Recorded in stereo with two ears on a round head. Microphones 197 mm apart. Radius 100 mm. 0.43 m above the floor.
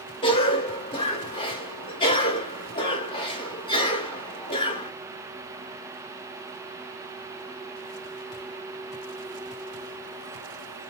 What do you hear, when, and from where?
0.2 s a cough: 25° left (ahead or behind), 1.0 m